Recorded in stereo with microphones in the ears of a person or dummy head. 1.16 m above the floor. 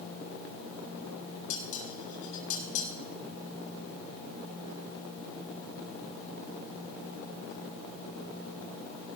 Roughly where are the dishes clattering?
Left.